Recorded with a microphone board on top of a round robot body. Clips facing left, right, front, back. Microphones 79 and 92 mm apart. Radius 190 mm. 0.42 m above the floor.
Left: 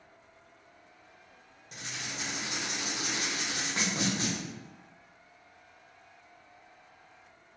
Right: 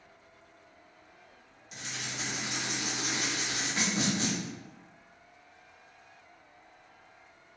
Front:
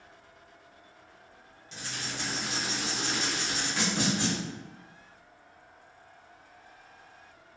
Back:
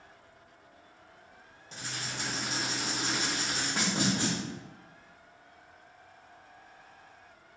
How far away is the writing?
About 1.5 m.